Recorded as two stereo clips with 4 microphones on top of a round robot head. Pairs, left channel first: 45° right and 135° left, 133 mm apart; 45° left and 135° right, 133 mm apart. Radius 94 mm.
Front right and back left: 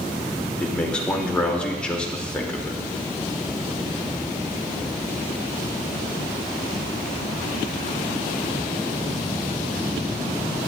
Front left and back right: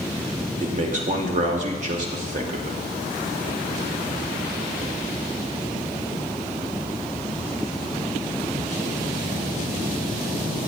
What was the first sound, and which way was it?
A man speaking, 125° right.